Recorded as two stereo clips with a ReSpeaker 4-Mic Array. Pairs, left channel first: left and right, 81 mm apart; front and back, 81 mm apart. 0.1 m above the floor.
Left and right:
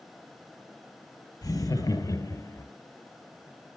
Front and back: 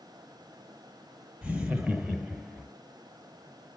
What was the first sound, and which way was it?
Laughter, 110° left.